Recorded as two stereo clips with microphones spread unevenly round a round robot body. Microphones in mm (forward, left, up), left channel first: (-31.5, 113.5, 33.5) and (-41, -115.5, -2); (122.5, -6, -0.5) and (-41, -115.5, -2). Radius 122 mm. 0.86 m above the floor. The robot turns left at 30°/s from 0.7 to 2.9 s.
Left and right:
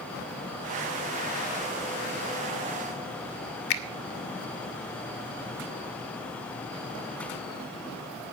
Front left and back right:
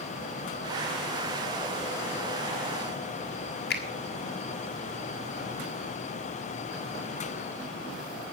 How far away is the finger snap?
About 1.3 m.